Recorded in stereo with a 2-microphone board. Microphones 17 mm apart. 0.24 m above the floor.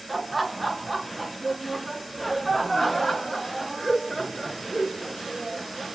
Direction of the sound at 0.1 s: 5° right (ahead or behind).